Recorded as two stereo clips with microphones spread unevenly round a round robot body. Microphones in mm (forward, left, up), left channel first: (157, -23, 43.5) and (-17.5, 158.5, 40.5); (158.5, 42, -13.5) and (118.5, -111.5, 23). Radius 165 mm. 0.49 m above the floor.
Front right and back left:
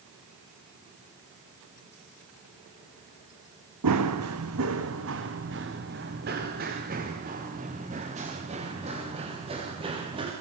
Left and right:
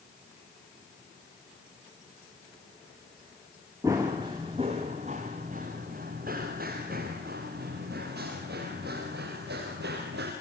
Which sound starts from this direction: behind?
Running footsteps, at 3.8 s.